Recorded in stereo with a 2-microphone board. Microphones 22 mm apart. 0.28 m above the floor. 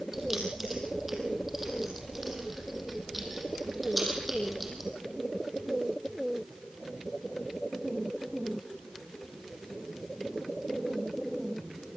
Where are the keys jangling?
20° right (ahead or behind), 6 m; by 4.9 s 5° right (ahead or behind), 7.5 m.